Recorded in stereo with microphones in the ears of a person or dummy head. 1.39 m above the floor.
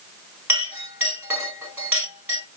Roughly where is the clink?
Centre.